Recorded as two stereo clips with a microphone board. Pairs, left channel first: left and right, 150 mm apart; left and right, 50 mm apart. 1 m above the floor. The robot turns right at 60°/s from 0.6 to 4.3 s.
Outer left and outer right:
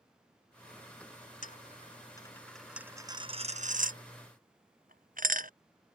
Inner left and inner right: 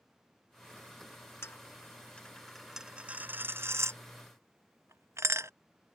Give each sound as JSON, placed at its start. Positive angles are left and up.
{"t": 1.4, "sound": "a dropped coin", "side_deg": 60}